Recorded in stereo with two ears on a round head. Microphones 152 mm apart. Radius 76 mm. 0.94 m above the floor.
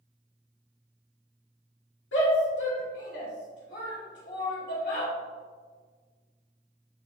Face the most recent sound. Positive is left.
turn(degrees=75)  # may be behind; listen again after turning